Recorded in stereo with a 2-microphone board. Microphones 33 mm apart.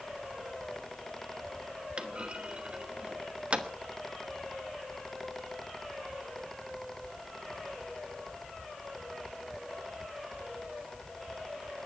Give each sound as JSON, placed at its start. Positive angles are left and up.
{"t": 2.0, "sound": "a clunk", "side_deg": -40, "distance_m": 1.1}